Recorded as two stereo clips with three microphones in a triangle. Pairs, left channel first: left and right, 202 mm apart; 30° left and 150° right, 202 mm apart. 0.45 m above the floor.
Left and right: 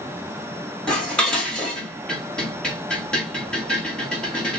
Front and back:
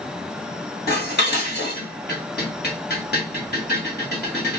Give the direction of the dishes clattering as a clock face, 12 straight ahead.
12 o'clock.